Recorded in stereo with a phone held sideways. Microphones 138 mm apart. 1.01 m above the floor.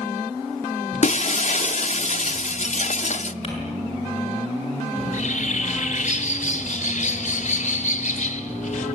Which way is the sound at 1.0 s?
60° left (ahead or behind).